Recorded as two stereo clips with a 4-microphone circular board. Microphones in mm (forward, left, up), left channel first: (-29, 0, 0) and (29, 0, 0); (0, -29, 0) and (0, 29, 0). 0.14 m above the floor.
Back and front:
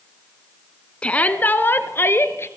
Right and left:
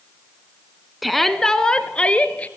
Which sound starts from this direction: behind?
A shout, at 1.0 s.